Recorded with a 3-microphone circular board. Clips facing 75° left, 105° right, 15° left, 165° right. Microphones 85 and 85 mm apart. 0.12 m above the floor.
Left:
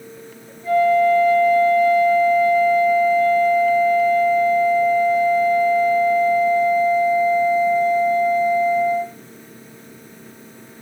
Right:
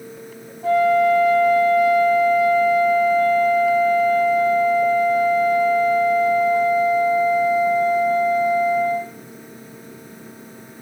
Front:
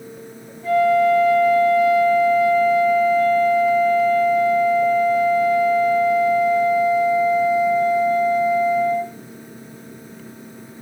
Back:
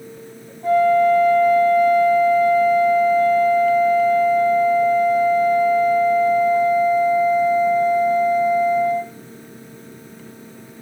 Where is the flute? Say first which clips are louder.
Left 1 dB, back 1 dB; 125° right, 4 m.